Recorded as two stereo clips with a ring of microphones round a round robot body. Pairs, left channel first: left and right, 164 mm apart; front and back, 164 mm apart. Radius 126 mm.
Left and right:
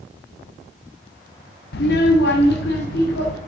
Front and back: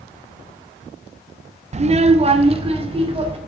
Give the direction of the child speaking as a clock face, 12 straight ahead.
8 o'clock.